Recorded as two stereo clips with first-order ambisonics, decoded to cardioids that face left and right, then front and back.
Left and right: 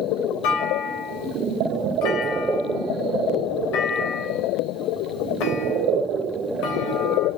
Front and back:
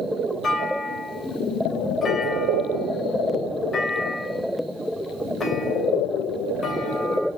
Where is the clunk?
75° left, 3 m.